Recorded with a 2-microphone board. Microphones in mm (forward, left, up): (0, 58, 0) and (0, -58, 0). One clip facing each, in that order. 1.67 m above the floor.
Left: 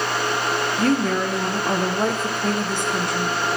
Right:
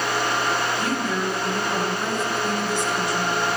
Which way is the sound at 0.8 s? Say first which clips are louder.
Left 5 dB; 55° left (ahead or behind).